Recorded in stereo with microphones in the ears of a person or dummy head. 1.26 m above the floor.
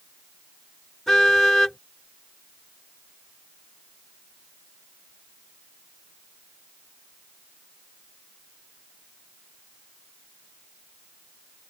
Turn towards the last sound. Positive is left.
turn(degrees=0)  # may be behind; listen again after turning